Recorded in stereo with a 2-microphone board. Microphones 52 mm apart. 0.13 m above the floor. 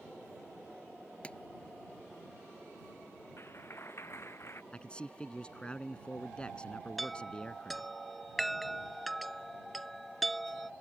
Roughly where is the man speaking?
Centre.